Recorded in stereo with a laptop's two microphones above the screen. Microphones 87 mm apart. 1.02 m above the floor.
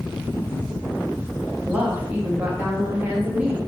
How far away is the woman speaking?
About 1.1 m.